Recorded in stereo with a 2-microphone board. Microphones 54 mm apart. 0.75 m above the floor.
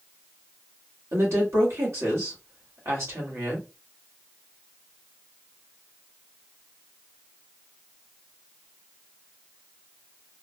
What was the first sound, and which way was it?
A woman speaking, 60° right (ahead or behind).